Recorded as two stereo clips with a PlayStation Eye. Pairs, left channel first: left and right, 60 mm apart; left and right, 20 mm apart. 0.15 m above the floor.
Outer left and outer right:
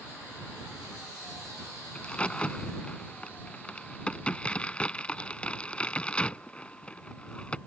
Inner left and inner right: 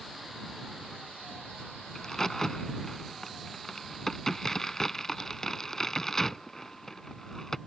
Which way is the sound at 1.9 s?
20° left (ahead or behind).